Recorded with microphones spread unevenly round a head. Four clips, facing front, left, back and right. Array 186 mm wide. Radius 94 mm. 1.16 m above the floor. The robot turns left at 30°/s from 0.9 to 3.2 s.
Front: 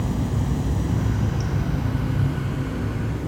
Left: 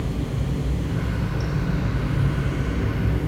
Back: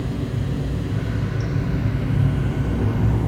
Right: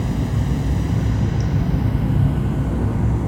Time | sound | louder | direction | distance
0.0 | running water | right 5 dB, front 1 dB | 70° right | 2.0 m